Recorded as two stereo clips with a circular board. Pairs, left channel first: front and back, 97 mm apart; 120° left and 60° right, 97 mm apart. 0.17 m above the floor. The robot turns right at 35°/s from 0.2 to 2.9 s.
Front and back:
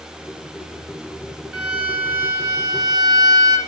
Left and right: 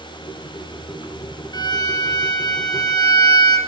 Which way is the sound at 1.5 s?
95° left.